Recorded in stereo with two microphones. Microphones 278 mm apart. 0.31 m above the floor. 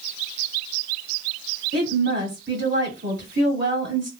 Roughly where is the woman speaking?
Right.